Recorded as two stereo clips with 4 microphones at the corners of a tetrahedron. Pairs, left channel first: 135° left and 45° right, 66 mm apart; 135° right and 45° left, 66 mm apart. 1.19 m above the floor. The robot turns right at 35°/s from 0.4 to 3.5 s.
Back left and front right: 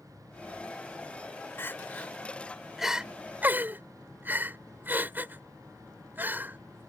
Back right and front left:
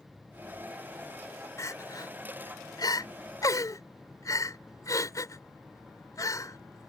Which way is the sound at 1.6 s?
175° right.